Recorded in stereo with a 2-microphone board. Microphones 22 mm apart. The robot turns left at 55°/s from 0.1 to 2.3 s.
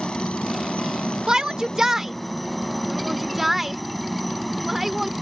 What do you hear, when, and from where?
0.0 s a helicopter: 130° left; by 5.2 s 5° left
1.3 s a shout: 35° right (ahead or behind); by 5.1 s 10° right (ahead or behind)